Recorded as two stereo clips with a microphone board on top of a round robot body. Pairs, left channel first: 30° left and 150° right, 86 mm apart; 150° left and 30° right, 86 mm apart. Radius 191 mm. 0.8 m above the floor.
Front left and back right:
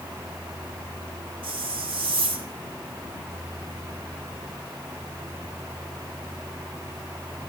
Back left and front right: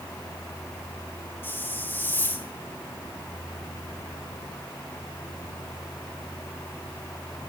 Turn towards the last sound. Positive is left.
turn(degrees=-145)